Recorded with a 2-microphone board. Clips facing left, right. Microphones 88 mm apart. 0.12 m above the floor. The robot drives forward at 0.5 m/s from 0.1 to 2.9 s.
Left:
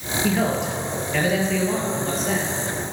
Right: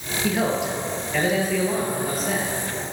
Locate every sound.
0.2 s a man speaking: 5° right (ahead or behind), 1.9 m